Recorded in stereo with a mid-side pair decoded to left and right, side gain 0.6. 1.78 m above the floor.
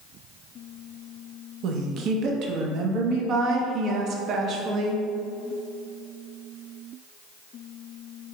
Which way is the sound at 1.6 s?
55° right.